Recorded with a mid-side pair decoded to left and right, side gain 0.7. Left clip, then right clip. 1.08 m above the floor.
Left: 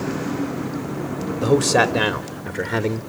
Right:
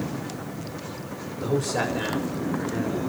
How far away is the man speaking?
About 3 m.